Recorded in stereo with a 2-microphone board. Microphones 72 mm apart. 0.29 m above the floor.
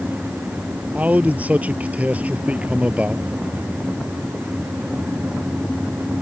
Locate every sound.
0.9 s a man speaking: 20° right (ahead or behind)